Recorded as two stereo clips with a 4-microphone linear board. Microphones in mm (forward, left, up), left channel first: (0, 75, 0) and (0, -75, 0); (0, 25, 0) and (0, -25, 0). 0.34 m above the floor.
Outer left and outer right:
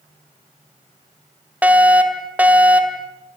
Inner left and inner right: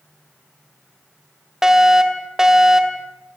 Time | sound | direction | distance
1.6 | a fire alarm | 10° right (ahead or behind) | 2.5 m